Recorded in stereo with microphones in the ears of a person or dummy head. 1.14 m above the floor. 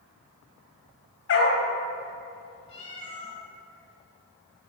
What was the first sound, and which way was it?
A dog barking, 65° left (ahead or behind).